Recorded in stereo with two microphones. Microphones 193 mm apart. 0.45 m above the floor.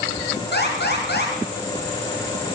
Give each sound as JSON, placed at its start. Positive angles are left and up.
{"t": 0.5, "sound": "an alarm", "side_deg": 60, "distance_m": 3.5}